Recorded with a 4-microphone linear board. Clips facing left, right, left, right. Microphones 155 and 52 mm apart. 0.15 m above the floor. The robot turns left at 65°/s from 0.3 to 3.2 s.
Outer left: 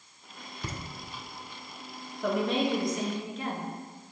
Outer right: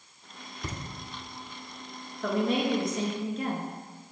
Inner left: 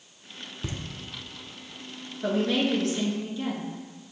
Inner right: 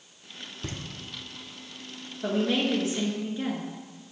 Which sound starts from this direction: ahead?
A woman speaking, at 2.2 s.